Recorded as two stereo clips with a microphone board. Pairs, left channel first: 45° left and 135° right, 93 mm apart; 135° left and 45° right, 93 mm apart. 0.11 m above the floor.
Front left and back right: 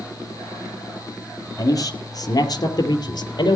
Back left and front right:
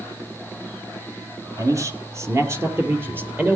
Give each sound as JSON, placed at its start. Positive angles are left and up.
{"t": 1.6, "sound": "a man speaking", "azimuth_deg": 0, "distance_m": 3.5}